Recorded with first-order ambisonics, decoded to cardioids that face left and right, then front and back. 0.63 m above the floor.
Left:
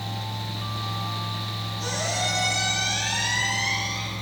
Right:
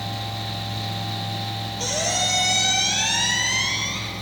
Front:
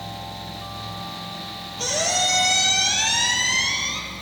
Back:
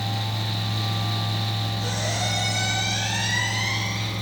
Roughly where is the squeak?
Ahead right.